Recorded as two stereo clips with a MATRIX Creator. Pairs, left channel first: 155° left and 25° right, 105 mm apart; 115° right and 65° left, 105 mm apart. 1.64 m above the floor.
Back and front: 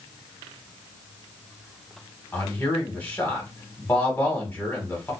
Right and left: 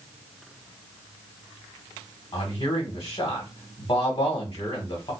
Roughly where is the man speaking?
Behind right.